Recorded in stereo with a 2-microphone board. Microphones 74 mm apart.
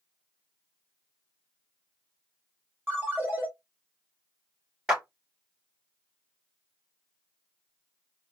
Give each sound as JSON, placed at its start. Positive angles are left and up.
{"t": 2.9, "sound": "a ringtone", "side_deg": -25, "distance_m": 1.7}
{"t": 4.9, "sound": "a clap", "side_deg": -10, "distance_m": 2.5}